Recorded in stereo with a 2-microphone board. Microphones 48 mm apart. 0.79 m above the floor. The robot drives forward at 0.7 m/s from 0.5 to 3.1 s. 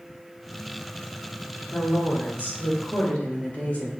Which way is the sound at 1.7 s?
50° left (ahead or behind).